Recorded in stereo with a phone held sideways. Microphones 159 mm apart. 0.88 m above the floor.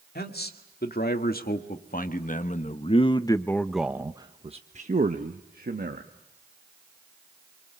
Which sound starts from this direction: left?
A man speaking, at 0.1 s.